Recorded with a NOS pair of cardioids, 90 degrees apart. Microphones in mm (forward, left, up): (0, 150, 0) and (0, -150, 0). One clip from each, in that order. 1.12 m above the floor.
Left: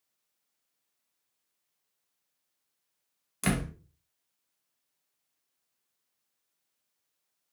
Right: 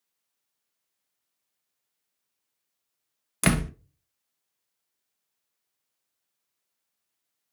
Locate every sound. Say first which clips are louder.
3.4 s a door slam: right 6 dB; 45° right, 0.7 m